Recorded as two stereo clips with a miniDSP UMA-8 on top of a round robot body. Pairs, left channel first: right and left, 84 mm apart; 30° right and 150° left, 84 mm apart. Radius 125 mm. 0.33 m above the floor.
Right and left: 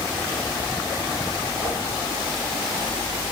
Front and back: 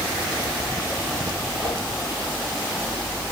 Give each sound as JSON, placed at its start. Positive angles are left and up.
{"t": 1.6, "sound": "a whoosh", "azimuth_deg": 45, "distance_m": 8.0}